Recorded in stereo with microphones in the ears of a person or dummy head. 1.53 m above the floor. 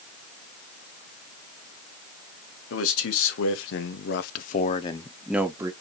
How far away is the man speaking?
About 1.5 m.